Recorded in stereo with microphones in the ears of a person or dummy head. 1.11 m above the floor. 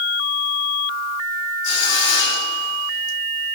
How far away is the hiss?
About 3 m.